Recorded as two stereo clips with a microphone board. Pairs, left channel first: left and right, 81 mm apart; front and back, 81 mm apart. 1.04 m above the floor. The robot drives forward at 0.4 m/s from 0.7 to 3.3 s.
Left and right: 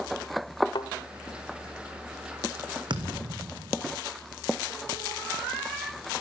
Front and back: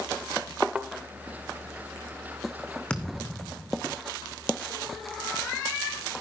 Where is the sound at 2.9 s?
75° right, 2.5 m; by 4.0 s 80° right, 2.5 m.